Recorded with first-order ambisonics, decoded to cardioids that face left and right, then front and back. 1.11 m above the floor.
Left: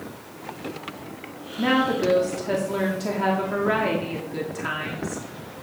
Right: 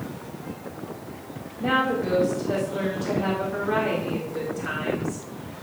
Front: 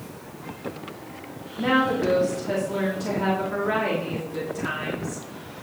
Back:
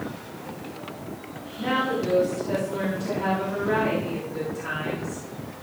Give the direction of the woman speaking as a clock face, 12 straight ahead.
10 o'clock.